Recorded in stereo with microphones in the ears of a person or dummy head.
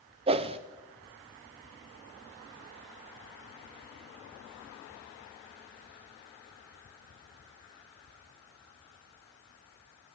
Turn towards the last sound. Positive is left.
turn(degrees=-30)  # may be behind; listen again after turning